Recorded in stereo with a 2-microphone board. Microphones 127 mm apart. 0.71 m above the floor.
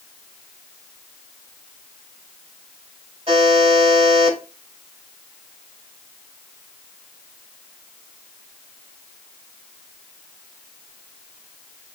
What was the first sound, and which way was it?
A buzzer, 45° right (ahead or behind).